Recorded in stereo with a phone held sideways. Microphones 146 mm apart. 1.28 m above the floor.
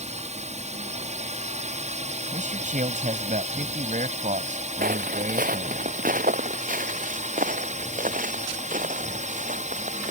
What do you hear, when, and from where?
0.0 s a drone: 50° right (ahead or behind)
2.3 s a man speaking: 60° right (ahead or behind)
4.8 s footsteps: 70° right (ahead or behind); by 10.1 s 60° right (ahead or behind)